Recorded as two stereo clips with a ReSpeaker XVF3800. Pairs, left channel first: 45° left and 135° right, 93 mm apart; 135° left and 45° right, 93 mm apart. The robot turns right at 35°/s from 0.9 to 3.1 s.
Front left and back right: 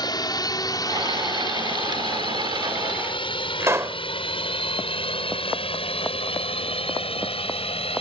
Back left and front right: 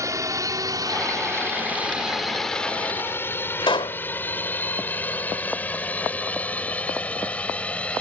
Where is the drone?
5° left; by 8.0 s 55° left.